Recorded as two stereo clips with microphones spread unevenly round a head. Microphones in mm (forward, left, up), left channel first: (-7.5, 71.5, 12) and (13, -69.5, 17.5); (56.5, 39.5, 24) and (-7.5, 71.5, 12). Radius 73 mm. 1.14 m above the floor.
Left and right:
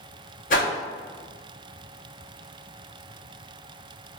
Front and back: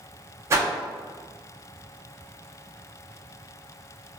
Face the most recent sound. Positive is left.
turn(degrees=110)